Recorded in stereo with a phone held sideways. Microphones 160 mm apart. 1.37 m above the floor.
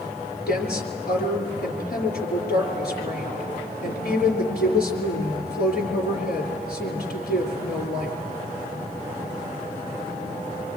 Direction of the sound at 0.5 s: 75° left (ahead or behind).